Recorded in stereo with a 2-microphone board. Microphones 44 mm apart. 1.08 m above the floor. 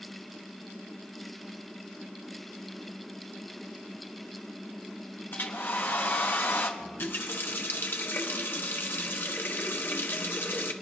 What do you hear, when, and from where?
5.3 s a hair dryer: 50° left (ahead or behind), 1.1 m
6.8 s a running tap: 50° left (ahead or behind), 0.9 m